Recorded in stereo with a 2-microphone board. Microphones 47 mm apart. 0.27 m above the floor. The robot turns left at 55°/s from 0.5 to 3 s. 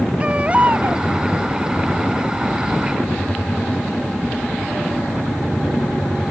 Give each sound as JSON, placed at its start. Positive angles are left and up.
{"t": 0.2, "sound": "a baby crying", "side_deg": -25}